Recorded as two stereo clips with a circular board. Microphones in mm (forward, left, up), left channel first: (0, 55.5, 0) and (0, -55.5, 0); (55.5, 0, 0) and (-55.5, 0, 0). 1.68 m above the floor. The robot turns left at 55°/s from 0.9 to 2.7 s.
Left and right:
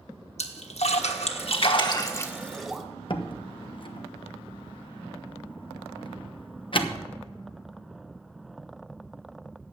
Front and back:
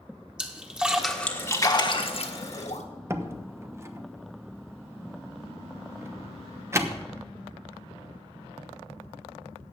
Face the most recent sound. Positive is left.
turn(degrees=120)